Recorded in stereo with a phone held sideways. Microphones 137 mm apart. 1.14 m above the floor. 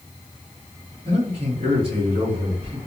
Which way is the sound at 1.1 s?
45° right (ahead or behind).